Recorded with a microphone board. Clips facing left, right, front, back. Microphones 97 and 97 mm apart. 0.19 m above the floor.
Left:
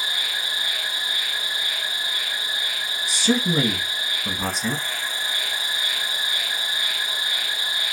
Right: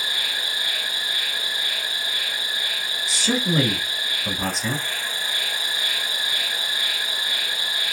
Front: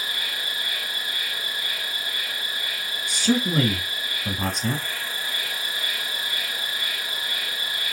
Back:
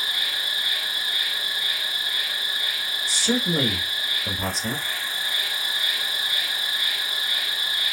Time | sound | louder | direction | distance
0.0 | an insect | even, even | 50° right | 2 m
3.1 | a man speaking | left 2 dB, front 2 dB | straight ahead | 1.9 m